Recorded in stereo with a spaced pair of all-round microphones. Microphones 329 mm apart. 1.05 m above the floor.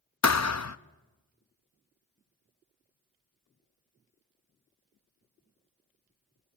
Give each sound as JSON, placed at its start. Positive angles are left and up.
{"t": 0.2, "sound": "a thud", "side_deg": 50, "distance_m": 0.5}